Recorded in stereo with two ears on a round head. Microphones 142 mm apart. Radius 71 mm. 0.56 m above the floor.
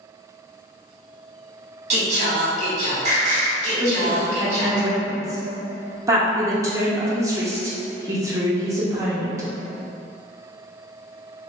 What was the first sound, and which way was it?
Singing, 40° right (ahead or behind).